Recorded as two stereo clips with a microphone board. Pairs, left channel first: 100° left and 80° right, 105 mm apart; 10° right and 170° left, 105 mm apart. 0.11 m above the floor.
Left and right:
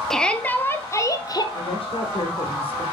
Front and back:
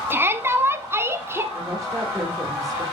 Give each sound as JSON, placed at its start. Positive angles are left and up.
{"t": 0.1, "sound": "a shout", "azimuth_deg": 175, "distance_m": 1.1}
{"t": 1.5, "sound": "a woman speaking", "azimuth_deg": 115, "distance_m": 3.5}